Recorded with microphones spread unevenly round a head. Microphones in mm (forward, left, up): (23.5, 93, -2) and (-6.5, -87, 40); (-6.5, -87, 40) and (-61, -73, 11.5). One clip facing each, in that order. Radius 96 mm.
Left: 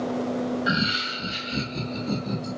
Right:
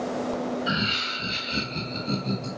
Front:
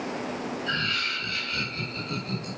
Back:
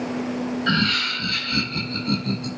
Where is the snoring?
No snoring in this recording.